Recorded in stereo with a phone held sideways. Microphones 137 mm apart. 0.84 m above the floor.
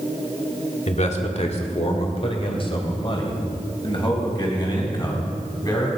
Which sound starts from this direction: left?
A man speaking, at 0.9 s.